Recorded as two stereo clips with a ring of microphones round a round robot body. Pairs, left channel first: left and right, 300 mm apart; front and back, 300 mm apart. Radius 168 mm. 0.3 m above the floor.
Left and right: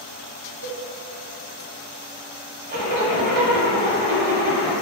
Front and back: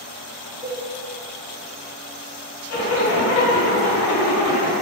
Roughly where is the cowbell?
Right.